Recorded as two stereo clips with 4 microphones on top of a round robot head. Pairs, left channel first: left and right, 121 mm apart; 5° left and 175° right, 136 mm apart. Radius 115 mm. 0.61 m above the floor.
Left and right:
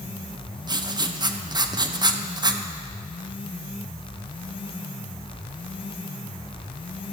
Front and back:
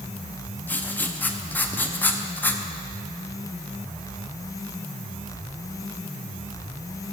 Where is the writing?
65° right, 0.7 m.